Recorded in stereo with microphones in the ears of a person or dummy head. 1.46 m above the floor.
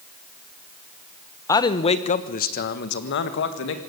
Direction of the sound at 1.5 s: 20° left (ahead or behind).